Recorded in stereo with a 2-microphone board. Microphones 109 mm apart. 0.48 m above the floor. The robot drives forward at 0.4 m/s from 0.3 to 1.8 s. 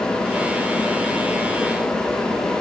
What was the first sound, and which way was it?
Only background noise.